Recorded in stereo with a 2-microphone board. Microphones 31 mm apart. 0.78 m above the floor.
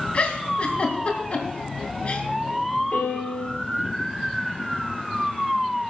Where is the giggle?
40° left (ahead or behind), 2.5 m.